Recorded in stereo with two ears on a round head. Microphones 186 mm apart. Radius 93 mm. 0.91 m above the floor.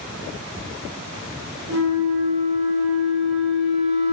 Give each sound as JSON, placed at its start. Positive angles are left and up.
{"t": 1.7, "sound": "a flute", "side_deg": -60, "distance_m": 1.1}